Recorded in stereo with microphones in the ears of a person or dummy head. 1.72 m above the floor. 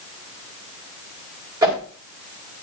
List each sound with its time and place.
1.6 s a whoosh: 20° right (ahead or behind), 2.5 m